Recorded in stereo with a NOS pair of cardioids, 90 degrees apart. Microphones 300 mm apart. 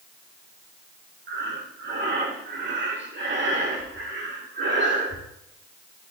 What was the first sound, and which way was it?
Breathing, 40° right.